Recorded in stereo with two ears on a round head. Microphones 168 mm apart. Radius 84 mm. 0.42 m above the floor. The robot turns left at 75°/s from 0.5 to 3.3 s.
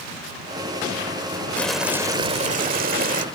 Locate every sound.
1.6 s boiling: 10° left; by 3.2 s 115° right